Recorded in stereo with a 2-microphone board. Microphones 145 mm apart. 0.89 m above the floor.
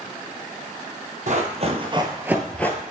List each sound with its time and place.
1.3 s running footsteps: 60° right (ahead or behind), 1.5 m; by 2.8 s 20° left (ahead or behind), 1.0 m